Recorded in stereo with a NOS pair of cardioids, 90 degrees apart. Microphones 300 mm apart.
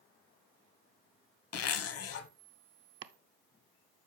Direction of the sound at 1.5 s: 55° left.